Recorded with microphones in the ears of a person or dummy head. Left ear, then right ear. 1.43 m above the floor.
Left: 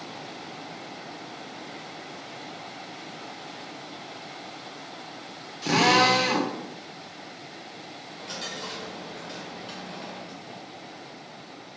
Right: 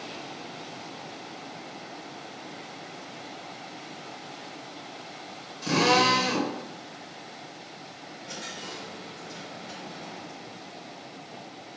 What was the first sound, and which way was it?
A drill, 25° left (ahead or behind).